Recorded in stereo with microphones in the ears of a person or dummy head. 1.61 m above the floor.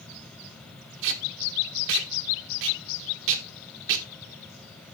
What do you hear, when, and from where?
1.0 s tape being pulled: 65° right (ahead or behind), 1.4 m